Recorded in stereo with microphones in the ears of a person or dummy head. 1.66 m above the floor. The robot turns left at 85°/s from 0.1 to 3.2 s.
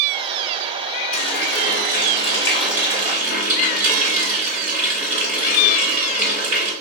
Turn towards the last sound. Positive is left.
turn(degrees=-55)